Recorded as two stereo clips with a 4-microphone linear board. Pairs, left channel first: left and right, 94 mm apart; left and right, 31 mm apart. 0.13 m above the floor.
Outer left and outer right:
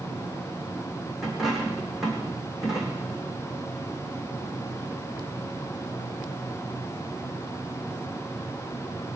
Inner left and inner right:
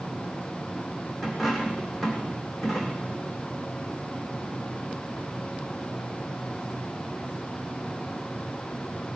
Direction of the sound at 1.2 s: Centre (ahead or behind).